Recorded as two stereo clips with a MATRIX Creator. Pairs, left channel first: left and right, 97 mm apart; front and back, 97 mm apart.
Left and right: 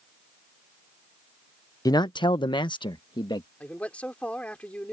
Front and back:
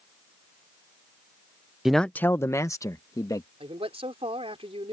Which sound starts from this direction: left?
A man speaking, at 1.9 s.